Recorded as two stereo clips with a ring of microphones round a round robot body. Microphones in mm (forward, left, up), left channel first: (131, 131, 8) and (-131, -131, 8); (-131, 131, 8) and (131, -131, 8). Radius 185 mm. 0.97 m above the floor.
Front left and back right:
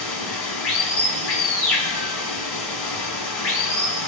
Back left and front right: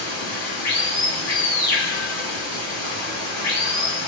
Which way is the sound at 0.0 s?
85° left.